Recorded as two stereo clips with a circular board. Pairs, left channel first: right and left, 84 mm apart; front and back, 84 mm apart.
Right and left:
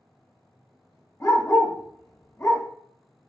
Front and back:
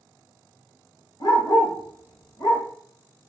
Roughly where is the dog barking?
Ahead right.